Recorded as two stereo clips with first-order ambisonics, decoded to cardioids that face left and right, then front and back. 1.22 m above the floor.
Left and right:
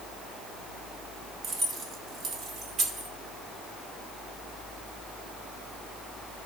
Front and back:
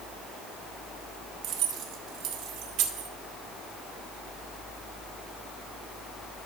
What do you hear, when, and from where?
1.4 s keys jangling: 150° right, 1.1 m